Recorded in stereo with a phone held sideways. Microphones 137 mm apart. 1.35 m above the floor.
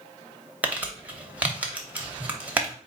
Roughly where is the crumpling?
Centre.